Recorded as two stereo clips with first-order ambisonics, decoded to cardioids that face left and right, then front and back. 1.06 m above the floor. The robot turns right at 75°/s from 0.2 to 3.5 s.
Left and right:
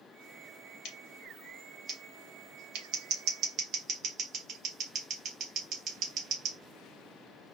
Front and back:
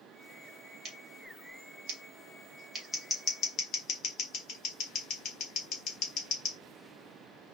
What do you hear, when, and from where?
0.8 s scissors: 120° left, 0.8 m; by 6.6 s 40° right, 0.8 m